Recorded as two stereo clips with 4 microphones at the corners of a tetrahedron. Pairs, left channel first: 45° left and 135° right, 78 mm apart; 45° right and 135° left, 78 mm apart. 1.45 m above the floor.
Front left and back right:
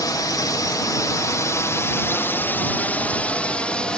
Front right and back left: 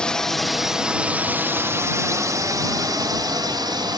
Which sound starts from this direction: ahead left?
A drone, at 0.0 s.